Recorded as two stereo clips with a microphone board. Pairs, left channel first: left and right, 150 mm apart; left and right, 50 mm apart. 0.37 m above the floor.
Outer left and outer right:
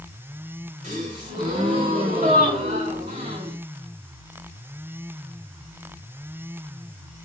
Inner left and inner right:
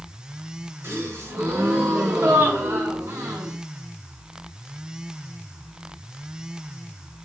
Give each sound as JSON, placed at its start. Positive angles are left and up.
{"t": 0.8, "sound": "a gasp", "side_deg": -55, "distance_m": 2.5}